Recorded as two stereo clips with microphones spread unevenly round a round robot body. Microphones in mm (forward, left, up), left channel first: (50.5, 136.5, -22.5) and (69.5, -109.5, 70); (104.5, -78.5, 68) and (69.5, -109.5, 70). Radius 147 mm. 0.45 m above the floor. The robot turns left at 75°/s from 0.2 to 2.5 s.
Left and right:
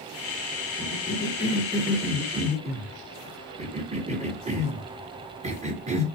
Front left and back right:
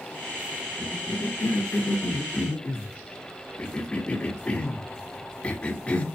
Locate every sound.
0.8 s a cough: 120° left, 1.3 m; by 6.0 s 10° right, 1.3 m